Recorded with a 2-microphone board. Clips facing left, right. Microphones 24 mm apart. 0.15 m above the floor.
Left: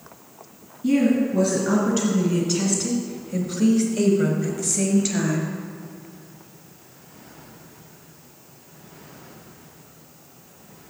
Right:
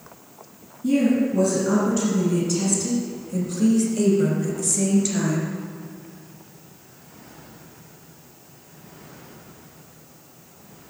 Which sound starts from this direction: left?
A woman speaking, at 0.8 s.